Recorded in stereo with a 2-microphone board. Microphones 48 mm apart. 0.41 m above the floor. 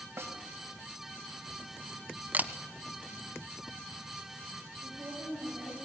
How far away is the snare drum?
About 3 m.